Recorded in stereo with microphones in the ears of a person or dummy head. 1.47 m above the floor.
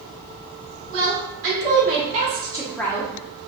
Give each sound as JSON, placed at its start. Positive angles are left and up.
{"t": 0.9, "sound": "a woman speaking", "side_deg": -65, "distance_m": 1.5}